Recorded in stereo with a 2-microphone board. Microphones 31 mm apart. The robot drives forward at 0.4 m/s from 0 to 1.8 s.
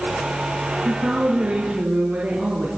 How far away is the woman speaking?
About 3 m.